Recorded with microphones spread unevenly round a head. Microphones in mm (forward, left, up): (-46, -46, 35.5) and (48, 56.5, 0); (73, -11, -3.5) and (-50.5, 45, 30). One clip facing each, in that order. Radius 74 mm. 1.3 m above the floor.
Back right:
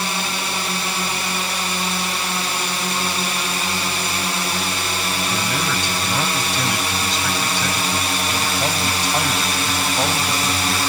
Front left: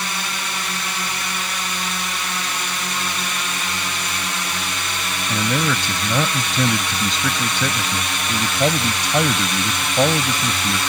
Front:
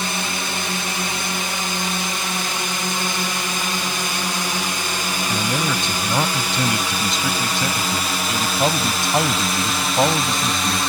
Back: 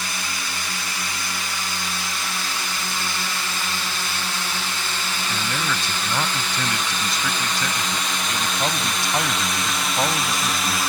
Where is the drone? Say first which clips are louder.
Back right 3 dB, front 6 dB; 70° right; by 10.9 s 90° right.